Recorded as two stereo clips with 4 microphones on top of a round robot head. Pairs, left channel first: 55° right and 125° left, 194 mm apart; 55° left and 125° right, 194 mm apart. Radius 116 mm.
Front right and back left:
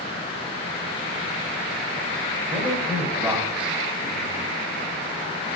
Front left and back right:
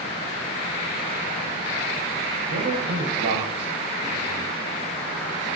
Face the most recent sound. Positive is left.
turn(degrees=-155)